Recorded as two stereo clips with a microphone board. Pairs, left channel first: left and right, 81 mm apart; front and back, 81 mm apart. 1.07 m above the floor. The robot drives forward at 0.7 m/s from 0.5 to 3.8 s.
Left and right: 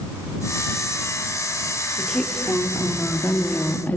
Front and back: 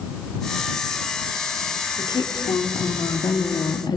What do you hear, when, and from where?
2.0 s a woman speaking: 15° left, 3 m; by 4.0 s 25° left, 1.6 m